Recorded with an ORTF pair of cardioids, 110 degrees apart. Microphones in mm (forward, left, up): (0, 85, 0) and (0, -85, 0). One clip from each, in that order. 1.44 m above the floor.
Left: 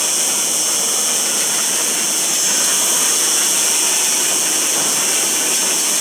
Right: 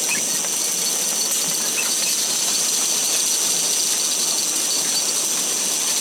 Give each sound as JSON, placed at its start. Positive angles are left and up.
{"t": 0.0, "sound": "an insect", "azimuth_deg": 60, "distance_m": 1.6}